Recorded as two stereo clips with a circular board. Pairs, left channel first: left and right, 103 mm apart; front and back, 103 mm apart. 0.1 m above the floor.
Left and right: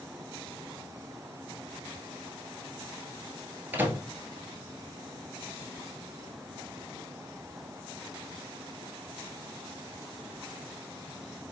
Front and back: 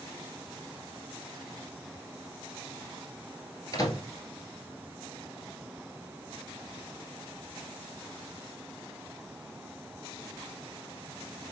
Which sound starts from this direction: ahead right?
A microwave, at 3.7 s.